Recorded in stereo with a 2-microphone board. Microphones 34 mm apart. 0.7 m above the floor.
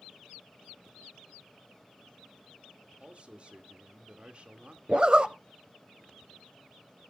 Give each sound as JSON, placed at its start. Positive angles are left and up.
{"t": 3.0, "sound": "a man speaking", "side_deg": -35, "distance_m": 1.7}
{"t": 4.9, "sound": "a zipper", "side_deg": -30, "distance_m": 0.5}